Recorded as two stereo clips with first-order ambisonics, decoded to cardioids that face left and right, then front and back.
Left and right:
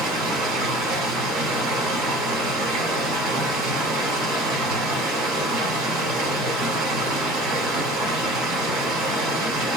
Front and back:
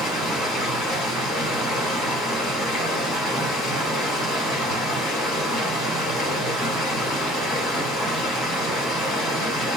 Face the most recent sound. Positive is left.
turn(degrees=-50)